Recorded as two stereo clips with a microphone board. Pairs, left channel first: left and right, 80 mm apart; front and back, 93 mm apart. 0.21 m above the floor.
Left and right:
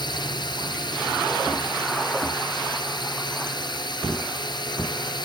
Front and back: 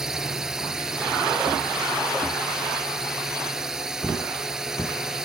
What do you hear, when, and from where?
0.0 s a drone: 95° left